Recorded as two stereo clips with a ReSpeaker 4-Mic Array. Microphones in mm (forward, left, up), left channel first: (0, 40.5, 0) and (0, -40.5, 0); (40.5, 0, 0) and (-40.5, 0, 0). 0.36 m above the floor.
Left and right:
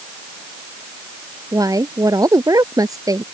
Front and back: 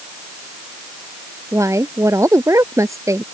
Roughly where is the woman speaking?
Behind right.